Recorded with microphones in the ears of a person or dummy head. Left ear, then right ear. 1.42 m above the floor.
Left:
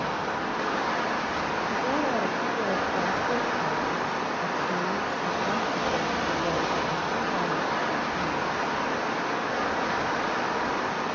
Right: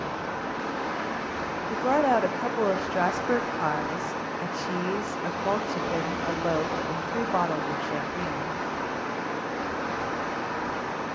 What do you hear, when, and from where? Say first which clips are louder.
0.0 s running water: left 3 dB; 25° left (ahead or behind), 1.3 m
1.7 s a woman speaking: right 7 dB; 60° right (ahead or behind), 0.7 m